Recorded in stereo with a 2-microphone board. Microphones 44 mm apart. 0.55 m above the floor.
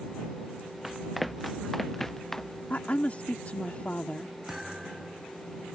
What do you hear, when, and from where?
0.8 s running footsteps: 5° right (ahead or behind); by 2.6 s 10° left (ahead or behind)
2.7 s a woman speaking: 35° left (ahead or behind)
4.5 s a thud: 10° right (ahead or behind)